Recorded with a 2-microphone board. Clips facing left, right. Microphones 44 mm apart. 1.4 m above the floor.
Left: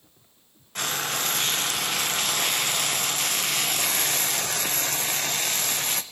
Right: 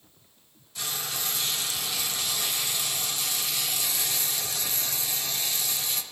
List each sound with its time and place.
0.8 s frying: 55° left (ahead or behind), 0.6 m